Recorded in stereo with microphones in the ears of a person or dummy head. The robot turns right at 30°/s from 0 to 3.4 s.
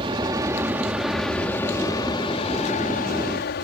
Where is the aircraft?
35° right; by 3.6 s 70° left.